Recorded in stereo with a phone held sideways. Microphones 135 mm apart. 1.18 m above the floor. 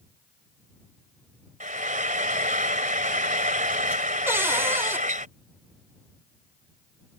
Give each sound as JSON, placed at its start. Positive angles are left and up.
{"t": 1.6, "sound": "frying", "side_deg": -75}
{"t": 4.3, "sound": "a cupboard door", "side_deg": -20}